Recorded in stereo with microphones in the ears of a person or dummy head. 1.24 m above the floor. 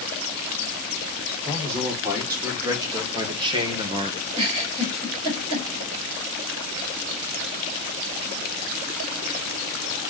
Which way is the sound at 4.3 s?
35° right (ahead or behind).